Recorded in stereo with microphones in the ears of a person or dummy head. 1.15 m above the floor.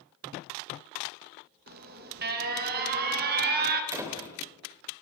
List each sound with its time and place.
1.7 s an alarm: 50° right (ahead or behind), 2.0 m
3.9 s a door slam: 15° right (ahead or behind), 4 m